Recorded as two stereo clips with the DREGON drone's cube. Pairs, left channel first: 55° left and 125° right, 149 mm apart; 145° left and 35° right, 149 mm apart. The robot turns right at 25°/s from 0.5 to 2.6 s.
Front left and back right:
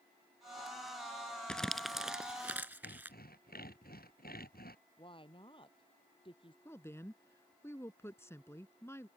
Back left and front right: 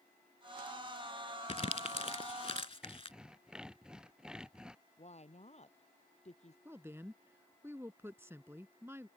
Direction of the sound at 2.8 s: 50° left.